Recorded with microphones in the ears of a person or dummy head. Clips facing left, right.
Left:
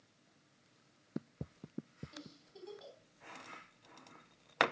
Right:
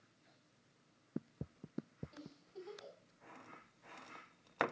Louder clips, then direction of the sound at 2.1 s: Right 1 dB; 20° left (ahead or behind).